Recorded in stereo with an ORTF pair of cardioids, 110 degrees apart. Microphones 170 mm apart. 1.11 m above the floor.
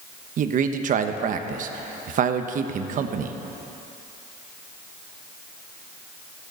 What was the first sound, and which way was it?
A man speaking, 55° right.